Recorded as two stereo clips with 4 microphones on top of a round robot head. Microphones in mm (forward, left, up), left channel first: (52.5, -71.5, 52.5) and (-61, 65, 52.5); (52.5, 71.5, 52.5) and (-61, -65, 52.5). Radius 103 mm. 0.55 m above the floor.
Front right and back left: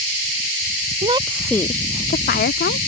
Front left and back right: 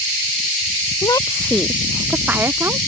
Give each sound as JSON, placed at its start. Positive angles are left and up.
{"t": 1.0, "sound": "a woman speaking", "azimuth_deg": 105}